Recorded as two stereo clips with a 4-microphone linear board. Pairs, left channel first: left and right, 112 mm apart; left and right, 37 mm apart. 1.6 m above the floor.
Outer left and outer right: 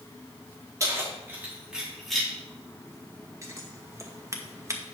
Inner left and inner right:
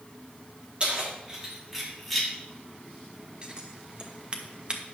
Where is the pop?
No pop in this recording.